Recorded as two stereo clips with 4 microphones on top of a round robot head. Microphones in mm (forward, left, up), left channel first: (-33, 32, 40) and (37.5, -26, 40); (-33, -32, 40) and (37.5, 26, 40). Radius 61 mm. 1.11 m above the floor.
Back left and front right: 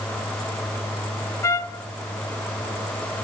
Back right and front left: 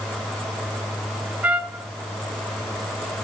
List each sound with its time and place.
1.4 s a trumpet: 105° left, 0.6 m